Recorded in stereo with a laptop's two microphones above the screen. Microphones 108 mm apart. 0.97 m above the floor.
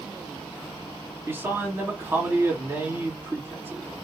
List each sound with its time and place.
1.3 s a man speaking: 20° right (ahead or behind), 1.7 m